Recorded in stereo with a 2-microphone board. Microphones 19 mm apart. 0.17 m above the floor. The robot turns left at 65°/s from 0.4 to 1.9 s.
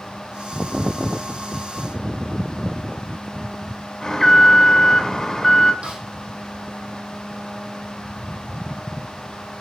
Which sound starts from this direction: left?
An alarm, at 4.0 s.